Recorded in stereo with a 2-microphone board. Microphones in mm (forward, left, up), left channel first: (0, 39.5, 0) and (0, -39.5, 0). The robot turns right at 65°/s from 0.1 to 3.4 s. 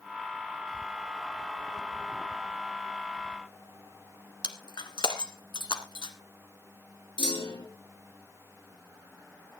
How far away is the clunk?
About 5 m.